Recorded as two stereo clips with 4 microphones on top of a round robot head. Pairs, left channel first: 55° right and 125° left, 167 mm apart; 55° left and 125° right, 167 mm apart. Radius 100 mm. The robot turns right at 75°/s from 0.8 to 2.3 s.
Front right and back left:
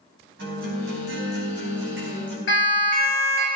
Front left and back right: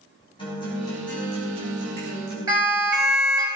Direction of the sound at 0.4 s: 115° left.